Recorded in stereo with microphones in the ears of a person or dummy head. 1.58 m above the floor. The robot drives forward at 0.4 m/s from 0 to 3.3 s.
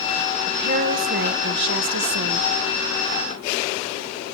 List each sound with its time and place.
0.5 s a woman speaking: 50° right (ahead or behind), 1.2 m; by 2.5 s 85° right, 0.9 m